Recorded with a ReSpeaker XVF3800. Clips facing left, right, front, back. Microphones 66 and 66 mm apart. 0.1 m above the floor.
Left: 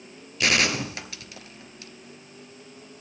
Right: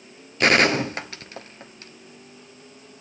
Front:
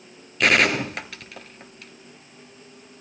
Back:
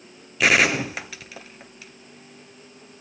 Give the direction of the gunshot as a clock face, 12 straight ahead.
3 o'clock.